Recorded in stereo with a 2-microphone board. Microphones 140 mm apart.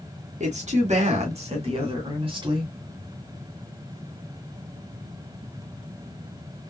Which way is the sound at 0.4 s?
50° right (ahead or behind).